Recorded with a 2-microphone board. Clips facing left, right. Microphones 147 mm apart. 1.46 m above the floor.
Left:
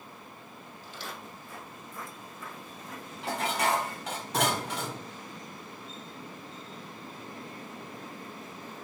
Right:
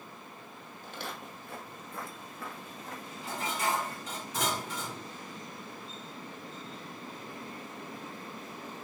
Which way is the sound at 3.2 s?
70° left (ahead or behind).